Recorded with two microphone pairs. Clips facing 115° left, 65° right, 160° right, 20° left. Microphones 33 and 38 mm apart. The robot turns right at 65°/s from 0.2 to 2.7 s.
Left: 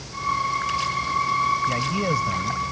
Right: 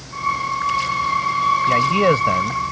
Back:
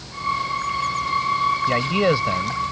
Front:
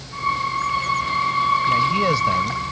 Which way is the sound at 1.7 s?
120° right.